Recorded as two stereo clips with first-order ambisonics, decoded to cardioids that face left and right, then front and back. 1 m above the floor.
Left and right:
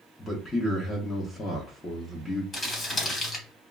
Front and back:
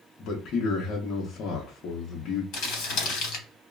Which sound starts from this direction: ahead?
A man speaking, at 0.2 s.